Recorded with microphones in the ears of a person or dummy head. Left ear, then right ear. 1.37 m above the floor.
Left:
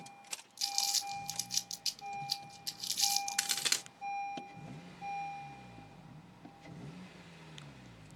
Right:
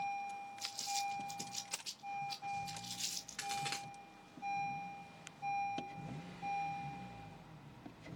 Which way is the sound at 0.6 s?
65° left (ahead or behind).